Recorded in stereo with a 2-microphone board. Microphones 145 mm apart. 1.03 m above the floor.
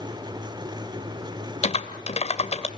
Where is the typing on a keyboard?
45° left (ahead or behind), 2 m.